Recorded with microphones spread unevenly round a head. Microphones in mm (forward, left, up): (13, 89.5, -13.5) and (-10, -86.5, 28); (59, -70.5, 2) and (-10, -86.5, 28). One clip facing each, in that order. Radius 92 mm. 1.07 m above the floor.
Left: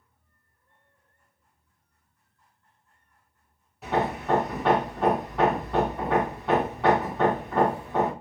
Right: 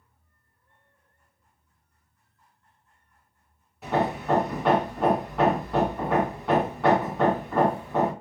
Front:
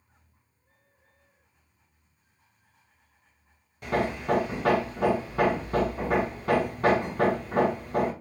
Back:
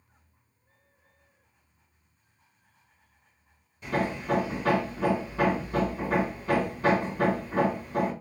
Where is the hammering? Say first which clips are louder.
Right 1 dB, front 2 dB; 20° right, 1.2 m.